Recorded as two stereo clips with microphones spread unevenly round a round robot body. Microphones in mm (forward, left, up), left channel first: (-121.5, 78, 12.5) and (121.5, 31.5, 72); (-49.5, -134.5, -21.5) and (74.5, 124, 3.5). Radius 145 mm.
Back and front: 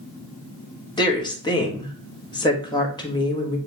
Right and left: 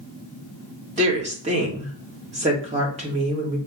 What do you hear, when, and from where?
1.0 s a woman speaking: 130° left, 1.1 m